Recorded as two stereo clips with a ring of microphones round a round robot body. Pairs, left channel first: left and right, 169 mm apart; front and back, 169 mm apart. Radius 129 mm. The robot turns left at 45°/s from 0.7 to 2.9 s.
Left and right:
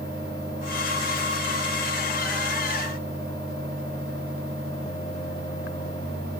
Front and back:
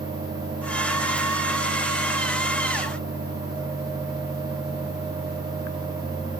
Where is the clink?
I don't hear a clink.